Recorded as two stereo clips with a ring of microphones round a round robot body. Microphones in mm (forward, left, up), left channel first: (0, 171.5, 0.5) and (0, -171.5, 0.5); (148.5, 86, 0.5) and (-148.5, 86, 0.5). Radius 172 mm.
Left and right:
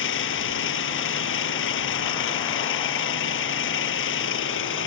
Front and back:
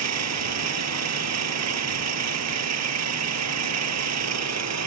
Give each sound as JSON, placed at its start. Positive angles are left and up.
{"t": 0.0, "sound": "an engine running", "azimuth_deg": 145}